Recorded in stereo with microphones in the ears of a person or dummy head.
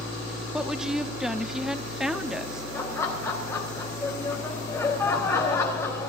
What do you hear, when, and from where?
0.5 s a woman speaking: centre (ahead or behind), 1.0 m
2.7 s laughter: 10° left (ahead or behind), 3.5 m